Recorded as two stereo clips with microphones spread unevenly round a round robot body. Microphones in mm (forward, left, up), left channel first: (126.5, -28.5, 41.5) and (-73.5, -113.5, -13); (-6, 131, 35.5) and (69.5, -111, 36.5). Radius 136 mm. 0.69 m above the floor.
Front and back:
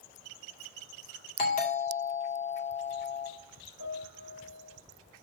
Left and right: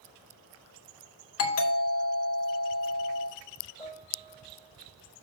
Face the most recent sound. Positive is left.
turn(degrees=30)